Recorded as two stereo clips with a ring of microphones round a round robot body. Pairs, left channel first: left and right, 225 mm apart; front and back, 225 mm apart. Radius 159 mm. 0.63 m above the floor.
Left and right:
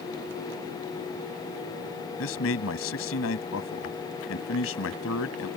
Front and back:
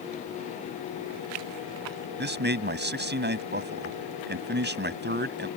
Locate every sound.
2.2 s a man speaking: 140° left